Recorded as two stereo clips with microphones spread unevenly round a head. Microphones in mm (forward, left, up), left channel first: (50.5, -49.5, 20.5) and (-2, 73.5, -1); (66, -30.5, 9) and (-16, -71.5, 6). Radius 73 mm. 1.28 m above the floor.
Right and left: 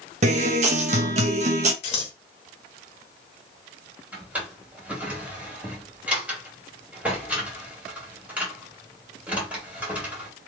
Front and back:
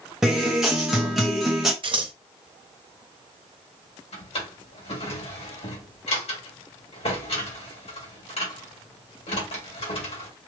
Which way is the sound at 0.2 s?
120° left.